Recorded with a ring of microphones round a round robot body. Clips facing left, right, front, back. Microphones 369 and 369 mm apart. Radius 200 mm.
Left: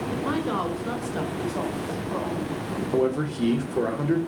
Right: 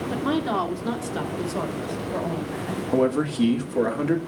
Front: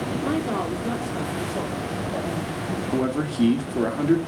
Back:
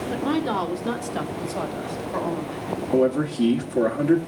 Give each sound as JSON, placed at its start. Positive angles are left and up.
{"t": 0.1, "sound": "a woman speaking", "azimuth_deg": -100, "distance_m": 2.5}
{"t": 2.9, "sound": "a man speaking", "azimuth_deg": -70, "distance_m": 2.0}